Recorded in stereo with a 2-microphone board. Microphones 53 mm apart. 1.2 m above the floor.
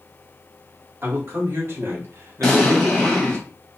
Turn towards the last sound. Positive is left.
turn(degrees=5)  # may be behind; listen again after turning